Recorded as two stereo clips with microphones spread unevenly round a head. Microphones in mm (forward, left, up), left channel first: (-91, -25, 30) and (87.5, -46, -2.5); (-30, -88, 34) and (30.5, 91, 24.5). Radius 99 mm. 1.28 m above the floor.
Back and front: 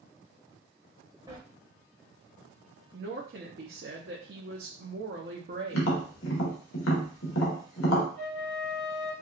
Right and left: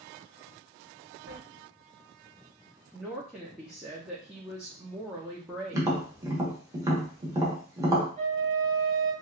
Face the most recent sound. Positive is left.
turn(degrees=135)